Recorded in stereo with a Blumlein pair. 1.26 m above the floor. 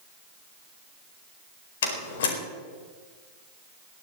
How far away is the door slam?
About 4.5 m.